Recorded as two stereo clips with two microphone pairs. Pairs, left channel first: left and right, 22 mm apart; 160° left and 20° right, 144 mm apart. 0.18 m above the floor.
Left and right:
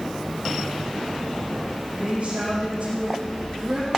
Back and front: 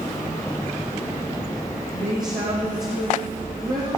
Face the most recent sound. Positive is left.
turn(degrees=-40)